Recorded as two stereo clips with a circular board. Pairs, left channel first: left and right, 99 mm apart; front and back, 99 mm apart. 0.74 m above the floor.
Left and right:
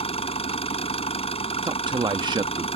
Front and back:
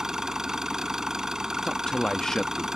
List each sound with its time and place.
0.0 s an engine running: 95° left
1.6 s a man speaking: 80° right